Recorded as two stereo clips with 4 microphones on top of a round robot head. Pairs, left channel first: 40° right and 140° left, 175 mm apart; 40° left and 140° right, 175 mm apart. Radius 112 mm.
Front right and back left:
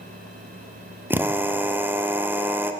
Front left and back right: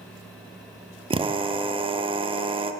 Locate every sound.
1.1 s a drill: 155° right, 0.5 m